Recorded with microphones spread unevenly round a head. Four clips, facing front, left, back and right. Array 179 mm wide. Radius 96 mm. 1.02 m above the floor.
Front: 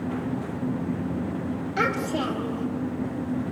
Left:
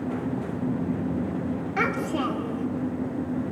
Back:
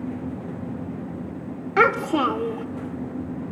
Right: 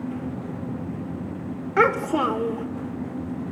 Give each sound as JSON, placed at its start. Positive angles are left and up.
{"t": 1.8, "sound": "a child speaking", "azimuth_deg": -125, "distance_m": 1.9}